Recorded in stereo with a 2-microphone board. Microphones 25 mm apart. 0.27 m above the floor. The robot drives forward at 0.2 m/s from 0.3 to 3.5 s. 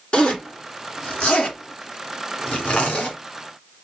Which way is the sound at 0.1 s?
50° left (ahead or behind).